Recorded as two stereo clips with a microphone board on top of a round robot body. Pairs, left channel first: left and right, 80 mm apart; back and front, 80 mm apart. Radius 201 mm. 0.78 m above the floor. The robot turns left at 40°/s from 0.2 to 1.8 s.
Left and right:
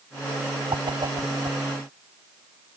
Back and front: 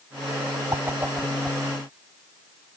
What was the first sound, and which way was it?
A whoosh, 60° right.